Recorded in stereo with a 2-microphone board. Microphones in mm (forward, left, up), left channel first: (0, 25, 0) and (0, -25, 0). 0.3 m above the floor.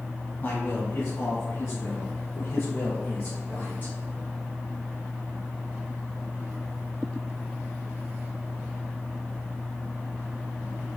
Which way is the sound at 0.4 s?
50° left (ahead or behind).